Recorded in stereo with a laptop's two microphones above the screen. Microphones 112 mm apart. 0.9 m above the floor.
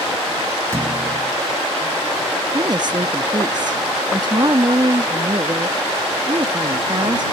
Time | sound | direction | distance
0.7 | a thud | 25° right (ahead or behind) | ?
2.5 | a woman speaking | 40° right (ahead or behind) | ?